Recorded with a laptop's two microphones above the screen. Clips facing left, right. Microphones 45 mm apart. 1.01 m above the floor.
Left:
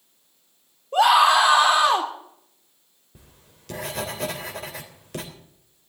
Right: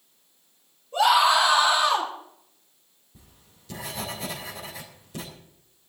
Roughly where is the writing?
Left.